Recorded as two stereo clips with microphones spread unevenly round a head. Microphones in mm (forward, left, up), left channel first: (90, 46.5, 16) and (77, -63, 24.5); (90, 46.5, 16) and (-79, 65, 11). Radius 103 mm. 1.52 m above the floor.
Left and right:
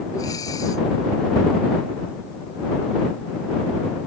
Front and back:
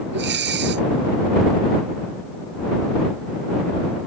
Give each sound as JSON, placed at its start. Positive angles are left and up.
{"t": 0.1, "sound": "breathing", "azimuth_deg": 160}